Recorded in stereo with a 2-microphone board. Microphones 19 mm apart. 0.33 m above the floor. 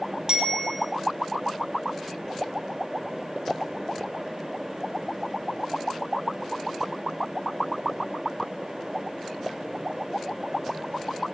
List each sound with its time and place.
0.3 s a bicycle bell: 45° right (ahead or behind), 4 m